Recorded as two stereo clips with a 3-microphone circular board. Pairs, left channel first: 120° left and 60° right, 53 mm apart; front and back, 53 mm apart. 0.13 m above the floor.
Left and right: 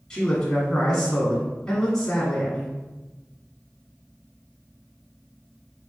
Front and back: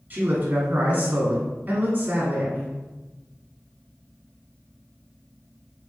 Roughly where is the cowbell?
No cowbell in this recording.